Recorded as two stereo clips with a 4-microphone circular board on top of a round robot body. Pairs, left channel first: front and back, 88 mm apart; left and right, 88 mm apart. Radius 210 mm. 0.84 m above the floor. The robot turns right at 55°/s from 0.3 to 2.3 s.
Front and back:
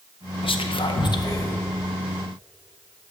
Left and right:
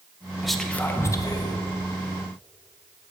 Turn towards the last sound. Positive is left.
turn(degrees=100)